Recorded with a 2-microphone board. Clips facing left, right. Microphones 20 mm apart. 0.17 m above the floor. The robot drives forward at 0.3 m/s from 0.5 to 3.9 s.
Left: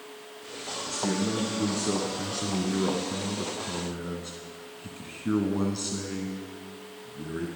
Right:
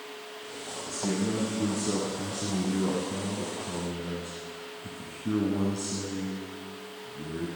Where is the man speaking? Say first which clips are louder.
Left 1 dB; 30° left (ahead or behind), 1.8 m; by 7.5 s 40° left (ahead or behind), 1.4 m.